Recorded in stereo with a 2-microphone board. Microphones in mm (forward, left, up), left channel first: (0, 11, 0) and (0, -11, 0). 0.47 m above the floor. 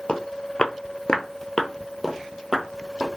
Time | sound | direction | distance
0.1 | footsteps | 45° left (ahead or behind) | 0.8 m